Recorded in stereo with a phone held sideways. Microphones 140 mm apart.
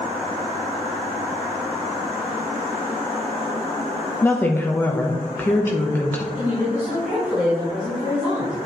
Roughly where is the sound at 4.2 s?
Centre.